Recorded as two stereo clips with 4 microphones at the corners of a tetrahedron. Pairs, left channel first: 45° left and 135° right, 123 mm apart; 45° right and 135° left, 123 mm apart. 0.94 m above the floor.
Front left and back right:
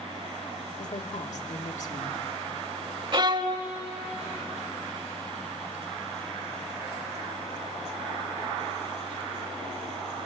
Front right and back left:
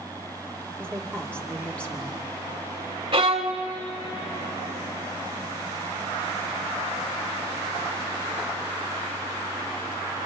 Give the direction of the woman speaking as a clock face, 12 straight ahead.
11 o'clock.